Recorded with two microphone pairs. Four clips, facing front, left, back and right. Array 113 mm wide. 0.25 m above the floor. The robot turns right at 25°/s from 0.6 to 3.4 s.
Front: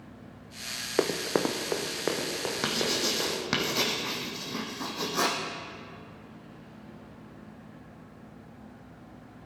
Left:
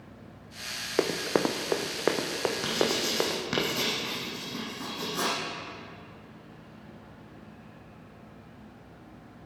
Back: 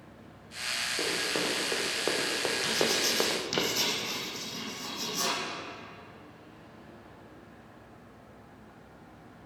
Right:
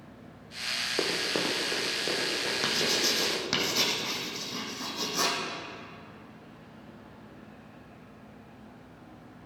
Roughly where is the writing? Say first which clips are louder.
Left 1 dB, front 1 dB; ahead.